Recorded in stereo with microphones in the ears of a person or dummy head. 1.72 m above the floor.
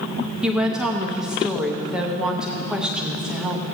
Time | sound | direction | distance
0.4 | a woman speaking | centre (ahead or behind) | 0.8 m